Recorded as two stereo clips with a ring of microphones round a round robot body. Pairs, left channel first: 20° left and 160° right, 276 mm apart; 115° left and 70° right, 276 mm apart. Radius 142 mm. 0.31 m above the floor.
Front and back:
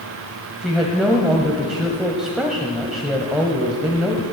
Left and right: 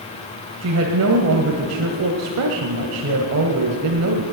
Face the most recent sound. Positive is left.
turn(degrees=-70)